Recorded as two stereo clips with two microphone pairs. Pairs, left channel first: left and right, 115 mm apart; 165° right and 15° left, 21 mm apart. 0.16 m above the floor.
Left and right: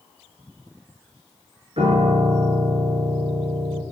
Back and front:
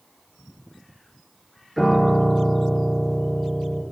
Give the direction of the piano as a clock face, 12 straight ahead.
3 o'clock.